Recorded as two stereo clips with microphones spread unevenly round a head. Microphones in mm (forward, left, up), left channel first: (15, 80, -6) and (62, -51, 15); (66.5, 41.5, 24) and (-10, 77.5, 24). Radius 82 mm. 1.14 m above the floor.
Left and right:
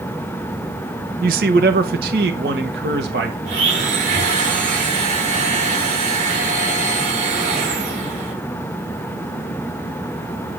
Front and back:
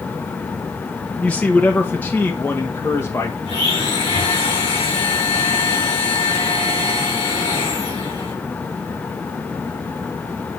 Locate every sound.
1.2 s a man speaking: 105° right, 0.9 m; by 3.4 s 100° right, 2.0 m
3.5 s a blender: 45° right, 7 m